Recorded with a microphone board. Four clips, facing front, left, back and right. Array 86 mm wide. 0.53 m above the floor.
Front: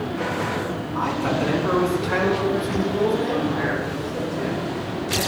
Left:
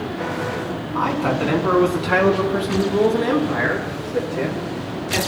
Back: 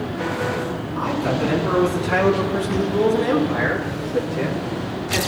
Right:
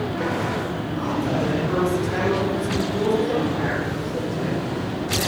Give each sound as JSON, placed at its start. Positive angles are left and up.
{"t": 0.9, "sound": "a man speaking", "azimuth_deg": 80, "distance_m": 5.0}